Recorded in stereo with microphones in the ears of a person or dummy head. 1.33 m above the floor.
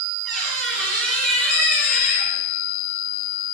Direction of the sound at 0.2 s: Centre (ahead or behind).